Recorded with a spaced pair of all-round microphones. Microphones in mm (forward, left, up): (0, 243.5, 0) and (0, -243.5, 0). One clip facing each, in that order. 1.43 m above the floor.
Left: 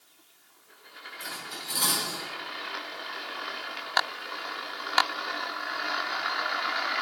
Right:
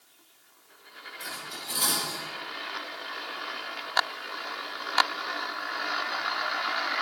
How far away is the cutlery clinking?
About 3 m.